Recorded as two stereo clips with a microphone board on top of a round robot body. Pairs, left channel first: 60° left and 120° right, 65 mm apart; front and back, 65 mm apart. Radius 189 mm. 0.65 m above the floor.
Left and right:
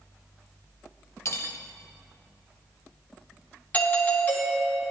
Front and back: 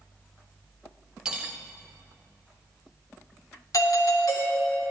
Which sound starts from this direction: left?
Cutlery clinking, at 1.2 s.